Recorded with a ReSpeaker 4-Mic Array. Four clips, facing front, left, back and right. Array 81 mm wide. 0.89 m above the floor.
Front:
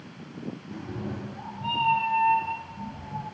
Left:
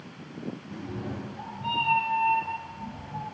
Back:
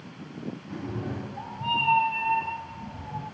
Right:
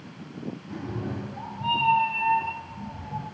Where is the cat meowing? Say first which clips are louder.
Right 5 dB, back 3 dB; 145° right, 0.7 m; by 3.2 s 125° right, 2 m.